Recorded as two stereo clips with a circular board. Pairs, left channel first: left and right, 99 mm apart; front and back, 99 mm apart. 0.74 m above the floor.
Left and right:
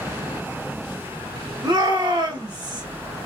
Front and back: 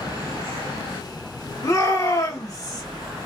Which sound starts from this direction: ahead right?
A shout, at 1.6 s.